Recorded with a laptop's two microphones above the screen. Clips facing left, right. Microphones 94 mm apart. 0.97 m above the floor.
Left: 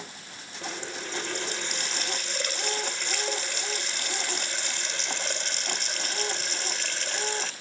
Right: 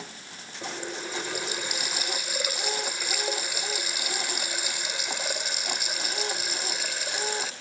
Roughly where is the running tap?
Centre.